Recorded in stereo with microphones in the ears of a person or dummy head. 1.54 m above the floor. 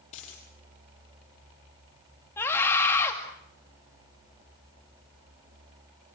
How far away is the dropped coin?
About 8.5 m.